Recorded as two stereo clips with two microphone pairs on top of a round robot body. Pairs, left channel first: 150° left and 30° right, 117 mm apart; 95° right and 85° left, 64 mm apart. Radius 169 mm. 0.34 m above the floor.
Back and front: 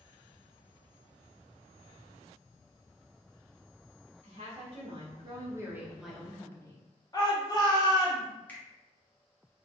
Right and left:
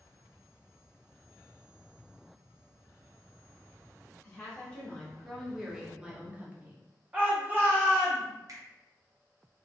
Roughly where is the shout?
Behind left.